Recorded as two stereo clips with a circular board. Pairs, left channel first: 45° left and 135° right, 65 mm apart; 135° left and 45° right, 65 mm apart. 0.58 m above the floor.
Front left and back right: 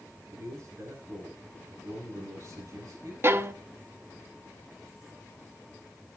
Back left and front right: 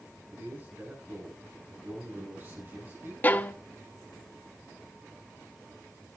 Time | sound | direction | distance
0.3 | a man speaking | 100° right | 6.5 m
3.2 | a violin | 170° right | 0.8 m